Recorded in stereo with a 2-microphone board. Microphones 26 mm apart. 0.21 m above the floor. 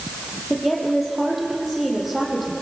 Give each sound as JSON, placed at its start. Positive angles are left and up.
{"t": 0.5, "sound": "a woman speaking", "side_deg": 0, "distance_m": 5.5}